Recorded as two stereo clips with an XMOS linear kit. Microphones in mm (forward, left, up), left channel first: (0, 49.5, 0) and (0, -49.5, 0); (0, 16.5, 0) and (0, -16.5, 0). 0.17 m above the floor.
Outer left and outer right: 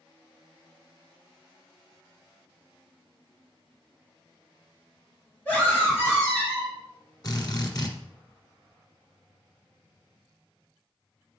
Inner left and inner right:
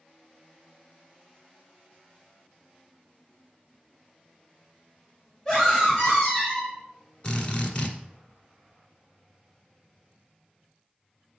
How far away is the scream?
About 3.5 m.